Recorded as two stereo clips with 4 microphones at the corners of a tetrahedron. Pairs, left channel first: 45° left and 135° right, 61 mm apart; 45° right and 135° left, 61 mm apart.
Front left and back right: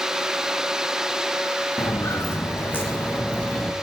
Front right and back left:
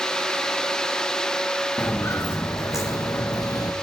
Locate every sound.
1.8 s footsteps: 5° left, 3.5 m; by 3.7 s 35° right, 3 m